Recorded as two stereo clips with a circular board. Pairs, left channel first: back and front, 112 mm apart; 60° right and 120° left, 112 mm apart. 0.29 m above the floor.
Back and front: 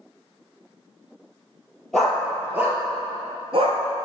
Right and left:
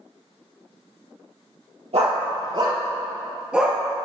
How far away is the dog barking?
About 1.9 m.